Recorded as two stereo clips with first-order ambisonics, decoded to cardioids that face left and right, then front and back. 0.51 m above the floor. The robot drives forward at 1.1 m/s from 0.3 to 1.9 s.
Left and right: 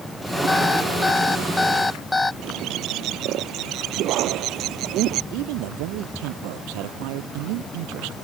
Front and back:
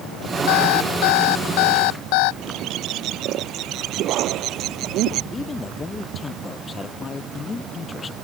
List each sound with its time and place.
0.5 s an alarm clock: 5° left; by 2.3 s 10° left
2.4 s a bird: 135° right
5.3 s a man speaking: 75° right